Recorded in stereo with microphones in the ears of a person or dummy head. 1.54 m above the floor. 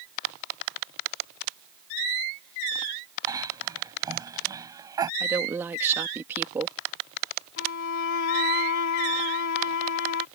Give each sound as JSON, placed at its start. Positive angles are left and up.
{"t": 3.3, "sound": "a cough", "side_deg": -20}
{"t": 5.2, "sound": "a woman speaking", "side_deg": -10}
{"t": 7.6, "sound": "a violin", "side_deg": 65}